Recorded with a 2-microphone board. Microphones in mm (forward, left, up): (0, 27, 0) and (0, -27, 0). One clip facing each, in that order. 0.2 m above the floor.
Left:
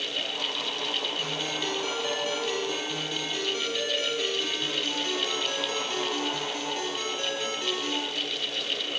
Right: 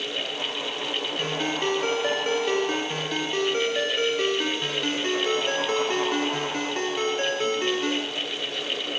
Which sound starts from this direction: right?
A ringtone, at 1.2 s.